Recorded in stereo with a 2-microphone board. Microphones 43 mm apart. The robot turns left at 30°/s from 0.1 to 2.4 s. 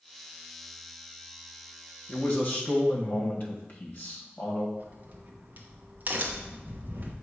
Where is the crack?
45° right (ahead or behind), 1.0 m.